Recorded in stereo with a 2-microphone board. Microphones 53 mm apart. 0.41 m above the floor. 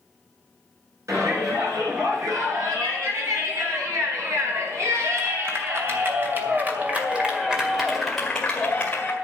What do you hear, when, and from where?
1.1 s a shout: 80° right, 7 m; by 9.1 s 30° left (ahead or behind), 2 m